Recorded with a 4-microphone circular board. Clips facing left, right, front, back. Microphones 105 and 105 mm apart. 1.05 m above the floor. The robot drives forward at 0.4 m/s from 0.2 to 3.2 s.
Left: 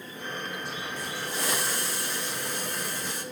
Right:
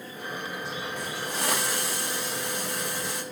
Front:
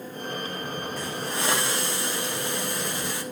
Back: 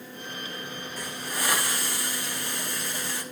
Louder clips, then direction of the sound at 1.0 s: Right 1 dB, front 1 dB; 65° right.